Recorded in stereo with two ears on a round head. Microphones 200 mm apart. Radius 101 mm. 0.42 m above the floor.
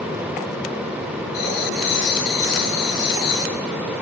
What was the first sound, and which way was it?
Writing, 50° left (ahead or behind).